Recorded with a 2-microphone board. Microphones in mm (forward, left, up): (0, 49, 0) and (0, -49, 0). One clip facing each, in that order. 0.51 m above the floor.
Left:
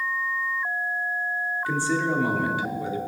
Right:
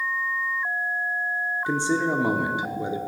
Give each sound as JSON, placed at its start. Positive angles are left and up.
{"t": 1.7, "sound": "a man speaking", "side_deg": -20, "distance_m": 1.2}